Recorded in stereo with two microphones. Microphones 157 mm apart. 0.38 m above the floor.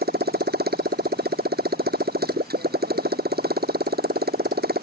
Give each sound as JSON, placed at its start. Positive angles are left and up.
{"t": 0.0, "sound": "a motorcycle", "side_deg": -90}